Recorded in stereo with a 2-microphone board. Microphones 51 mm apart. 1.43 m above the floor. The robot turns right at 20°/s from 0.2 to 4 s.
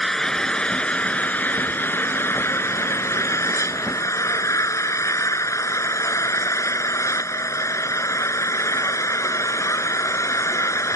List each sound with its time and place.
0.0 s an engine running: 10° left; by 11.0 s 85° left